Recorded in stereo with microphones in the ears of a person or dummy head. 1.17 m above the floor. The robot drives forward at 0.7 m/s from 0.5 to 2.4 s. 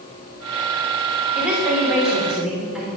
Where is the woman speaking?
10° right (ahead or behind), 2.5 m; by 2.9 s 5° right (ahead or behind), 3 m.